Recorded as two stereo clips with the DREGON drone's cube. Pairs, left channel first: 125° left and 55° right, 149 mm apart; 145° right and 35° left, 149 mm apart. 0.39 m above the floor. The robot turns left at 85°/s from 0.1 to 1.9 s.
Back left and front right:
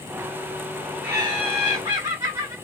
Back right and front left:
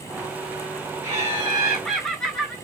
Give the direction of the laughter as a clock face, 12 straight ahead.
12 o'clock.